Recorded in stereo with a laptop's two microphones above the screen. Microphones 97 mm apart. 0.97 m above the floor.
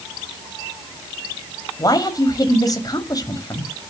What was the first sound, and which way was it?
A man speaking, 40° left (ahead or behind).